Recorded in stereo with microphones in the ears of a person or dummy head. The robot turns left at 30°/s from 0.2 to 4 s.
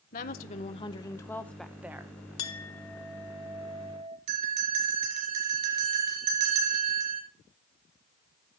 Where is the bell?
35° right (ahead or behind), 3 m.